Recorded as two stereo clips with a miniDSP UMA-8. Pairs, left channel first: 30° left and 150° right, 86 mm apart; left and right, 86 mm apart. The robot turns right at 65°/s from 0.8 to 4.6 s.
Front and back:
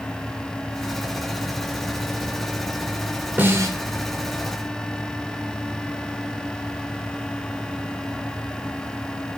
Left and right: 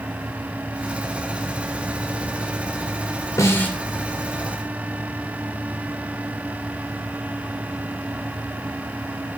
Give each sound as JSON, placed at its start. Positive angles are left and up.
{"t": 3.4, "sound": "a snare drum", "azimuth_deg": 140, "distance_m": 1.5}